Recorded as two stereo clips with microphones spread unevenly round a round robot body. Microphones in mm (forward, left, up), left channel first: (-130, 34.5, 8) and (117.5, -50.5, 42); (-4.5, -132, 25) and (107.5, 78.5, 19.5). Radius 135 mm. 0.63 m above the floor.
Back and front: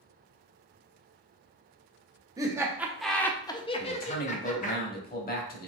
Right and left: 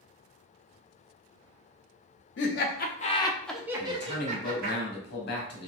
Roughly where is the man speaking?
Behind.